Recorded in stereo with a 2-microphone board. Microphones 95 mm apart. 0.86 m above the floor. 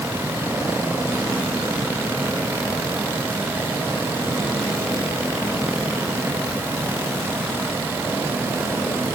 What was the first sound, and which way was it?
Only background noise.